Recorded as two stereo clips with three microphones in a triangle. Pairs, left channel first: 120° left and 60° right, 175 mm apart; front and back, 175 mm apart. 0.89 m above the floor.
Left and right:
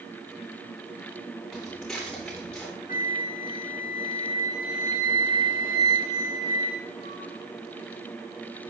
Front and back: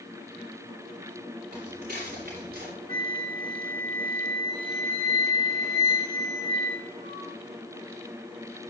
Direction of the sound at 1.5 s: 150° right.